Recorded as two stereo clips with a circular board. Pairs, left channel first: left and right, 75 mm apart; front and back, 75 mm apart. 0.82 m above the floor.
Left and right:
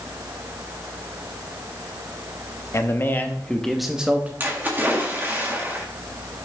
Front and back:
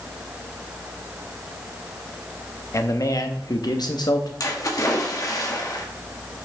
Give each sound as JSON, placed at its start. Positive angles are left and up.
{"t": 2.7, "sound": "a man speaking", "azimuth_deg": 45, "distance_m": 0.9}
{"t": 4.4, "sound": "a splash", "azimuth_deg": -30, "distance_m": 1.7}